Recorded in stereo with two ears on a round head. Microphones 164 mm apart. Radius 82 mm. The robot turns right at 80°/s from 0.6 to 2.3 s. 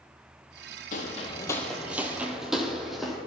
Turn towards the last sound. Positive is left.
turn(degrees=0)  # may be behind; listen again after turning